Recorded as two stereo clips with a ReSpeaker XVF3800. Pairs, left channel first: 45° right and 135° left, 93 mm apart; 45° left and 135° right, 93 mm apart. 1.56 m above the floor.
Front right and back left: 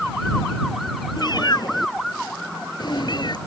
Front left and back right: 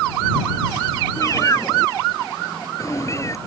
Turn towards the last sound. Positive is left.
turn(degrees=-10)